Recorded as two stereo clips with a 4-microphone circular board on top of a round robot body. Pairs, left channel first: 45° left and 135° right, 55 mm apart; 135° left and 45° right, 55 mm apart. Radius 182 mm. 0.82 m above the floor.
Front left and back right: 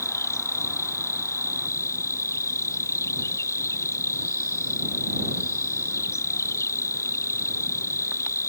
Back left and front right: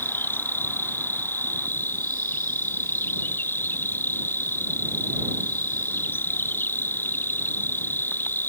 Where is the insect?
80° left.